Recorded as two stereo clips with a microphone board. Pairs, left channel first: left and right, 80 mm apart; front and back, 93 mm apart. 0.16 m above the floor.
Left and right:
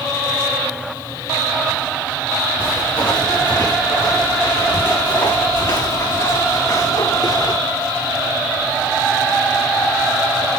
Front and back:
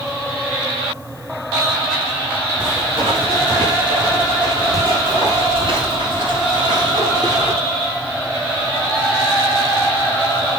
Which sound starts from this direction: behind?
Footsteps, at 2.6 s.